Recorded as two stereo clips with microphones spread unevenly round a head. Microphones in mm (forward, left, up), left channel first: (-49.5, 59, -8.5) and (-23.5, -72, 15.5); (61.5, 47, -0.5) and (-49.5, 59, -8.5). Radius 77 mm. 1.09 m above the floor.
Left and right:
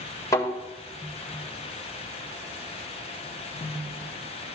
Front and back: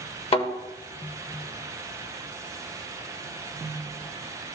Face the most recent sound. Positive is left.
turn(degrees=25)